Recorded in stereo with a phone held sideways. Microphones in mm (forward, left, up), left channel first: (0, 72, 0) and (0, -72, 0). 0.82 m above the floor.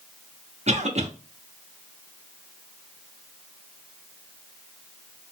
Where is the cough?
50° right (ahead or behind), 0.9 m.